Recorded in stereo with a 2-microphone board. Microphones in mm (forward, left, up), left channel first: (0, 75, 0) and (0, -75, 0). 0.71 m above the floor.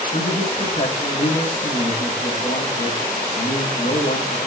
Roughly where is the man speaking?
Left.